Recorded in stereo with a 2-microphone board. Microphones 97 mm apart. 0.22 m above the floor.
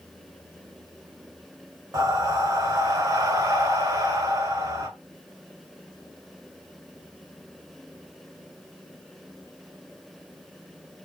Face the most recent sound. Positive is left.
turn(degrees=-35)  # may be behind; listen again after turning